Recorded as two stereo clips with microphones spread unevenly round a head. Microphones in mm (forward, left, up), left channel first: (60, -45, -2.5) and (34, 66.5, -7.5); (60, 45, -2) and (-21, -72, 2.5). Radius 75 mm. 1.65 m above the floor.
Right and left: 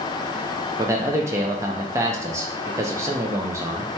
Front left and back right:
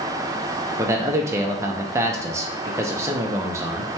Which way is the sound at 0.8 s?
170° left.